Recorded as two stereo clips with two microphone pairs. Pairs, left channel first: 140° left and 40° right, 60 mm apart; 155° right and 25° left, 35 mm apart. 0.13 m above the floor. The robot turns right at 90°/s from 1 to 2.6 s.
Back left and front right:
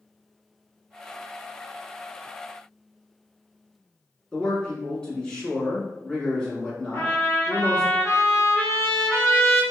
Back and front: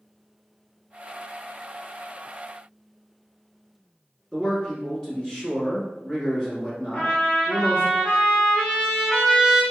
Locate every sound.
4.3 s a man speaking: 170° right, 1.1 m
6.9 s a trumpet: 155° left, 1.9 m